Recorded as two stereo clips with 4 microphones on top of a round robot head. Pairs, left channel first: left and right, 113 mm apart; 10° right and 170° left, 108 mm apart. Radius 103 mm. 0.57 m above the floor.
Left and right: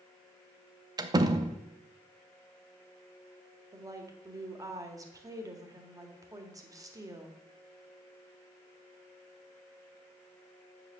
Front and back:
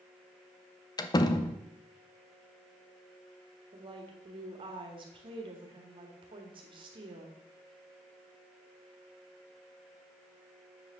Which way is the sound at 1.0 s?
50° right.